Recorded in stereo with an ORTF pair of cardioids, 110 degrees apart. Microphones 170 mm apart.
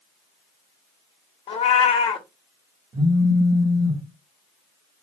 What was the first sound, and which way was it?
A cat meowing, 30° left.